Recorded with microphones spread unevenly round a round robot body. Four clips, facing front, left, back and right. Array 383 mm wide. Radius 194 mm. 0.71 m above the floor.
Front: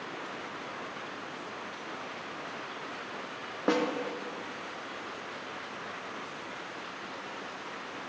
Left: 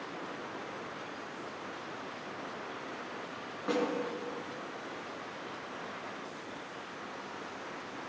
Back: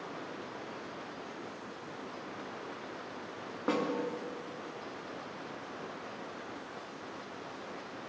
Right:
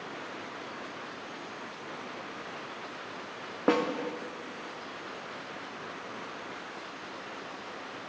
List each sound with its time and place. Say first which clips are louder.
3.7 s a snare drum: right 5 dB, front 4 dB; 65° right, 0.8 m